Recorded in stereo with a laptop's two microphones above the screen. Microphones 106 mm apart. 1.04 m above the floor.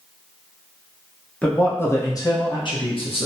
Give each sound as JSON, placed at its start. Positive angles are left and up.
{"t": 1.4, "sound": "a man speaking", "side_deg": 10, "distance_m": 0.9}